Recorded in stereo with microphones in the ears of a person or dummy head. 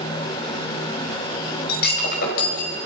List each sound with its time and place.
1.7 s breaking glass: 55° left (ahead or behind), 5 m